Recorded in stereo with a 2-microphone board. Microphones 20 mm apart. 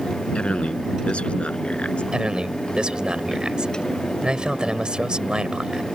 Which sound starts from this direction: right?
A man speaking, at 2.1 s.